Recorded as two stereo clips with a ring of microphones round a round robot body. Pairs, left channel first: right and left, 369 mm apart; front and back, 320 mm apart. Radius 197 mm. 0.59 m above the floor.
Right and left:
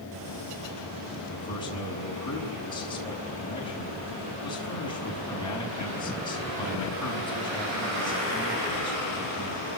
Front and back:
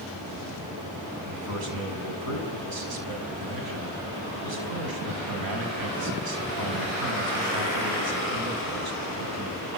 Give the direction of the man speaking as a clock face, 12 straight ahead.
6 o'clock.